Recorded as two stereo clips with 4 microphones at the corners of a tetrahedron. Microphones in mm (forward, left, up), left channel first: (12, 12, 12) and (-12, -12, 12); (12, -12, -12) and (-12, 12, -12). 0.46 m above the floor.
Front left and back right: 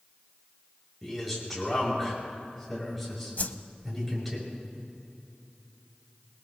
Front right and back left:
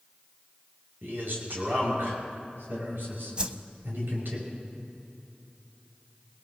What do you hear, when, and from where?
1.0 s a man speaking: 135° left, 7 m
3.4 s a whoosh: 75° left, 0.7 m